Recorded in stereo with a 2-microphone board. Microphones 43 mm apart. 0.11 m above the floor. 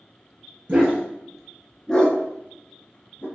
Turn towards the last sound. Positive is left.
turn(degrees=50)  # may be behind; listen again after turning